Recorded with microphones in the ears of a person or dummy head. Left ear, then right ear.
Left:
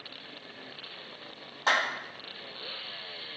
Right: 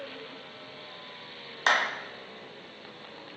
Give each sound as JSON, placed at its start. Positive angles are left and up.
{"t": 1.7, "sound": "a clap", "side_deg": -70, "distance_m": 1.4}